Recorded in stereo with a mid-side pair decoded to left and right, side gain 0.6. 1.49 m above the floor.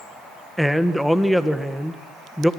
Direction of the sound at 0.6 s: Straight ahead.